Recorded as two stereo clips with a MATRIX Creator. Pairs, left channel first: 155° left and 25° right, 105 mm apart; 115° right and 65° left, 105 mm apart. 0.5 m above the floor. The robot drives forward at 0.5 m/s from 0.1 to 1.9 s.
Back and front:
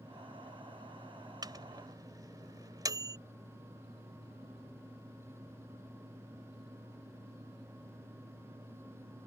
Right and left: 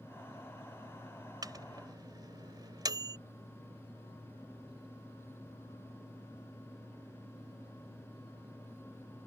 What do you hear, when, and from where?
1.4 s a microwave: 20° left; by 3.2 s 25° left